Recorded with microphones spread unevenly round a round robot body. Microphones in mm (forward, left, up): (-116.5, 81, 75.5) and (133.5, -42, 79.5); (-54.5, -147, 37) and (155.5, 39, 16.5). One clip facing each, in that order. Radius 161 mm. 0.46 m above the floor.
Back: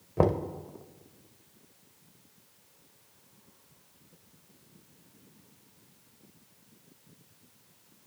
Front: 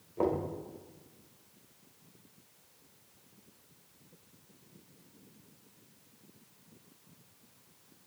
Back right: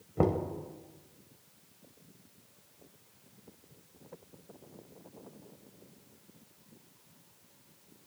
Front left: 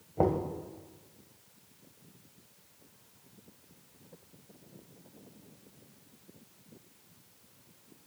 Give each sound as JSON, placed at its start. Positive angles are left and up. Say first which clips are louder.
{"t": 0.2, "sound": "knocking", "louder": "back 4 dB, even", "azimuth_deg": 155, "distance_m": 1.5}